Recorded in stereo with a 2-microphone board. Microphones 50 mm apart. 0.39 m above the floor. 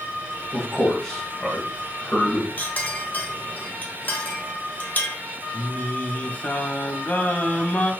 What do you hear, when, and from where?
0.5 s a man speaking: 20° left (ahead or behind), 1.6 m
2.6 s a clink: 35° left (ahead or behind), 0.8 m
5.5 s singing: 35° left (ahead or behind), 0.5 m